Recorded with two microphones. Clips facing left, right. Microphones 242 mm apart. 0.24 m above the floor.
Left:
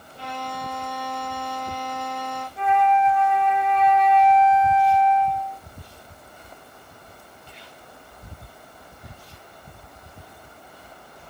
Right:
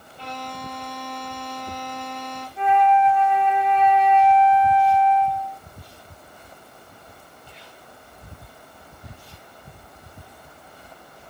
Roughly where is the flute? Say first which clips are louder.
Right 2 dB; left.